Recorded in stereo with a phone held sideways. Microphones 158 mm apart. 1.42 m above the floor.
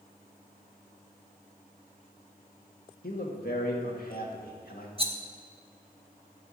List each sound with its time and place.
3.0 s a man speaking: 70° left (ahead or behind), 2 m
5.0 s a rattle: 35° right (ahead or behind), 1.0 m